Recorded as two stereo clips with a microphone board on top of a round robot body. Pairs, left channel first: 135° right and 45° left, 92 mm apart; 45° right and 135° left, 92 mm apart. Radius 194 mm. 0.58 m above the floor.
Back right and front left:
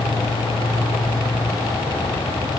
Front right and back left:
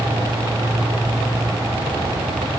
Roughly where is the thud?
No thud in this recording.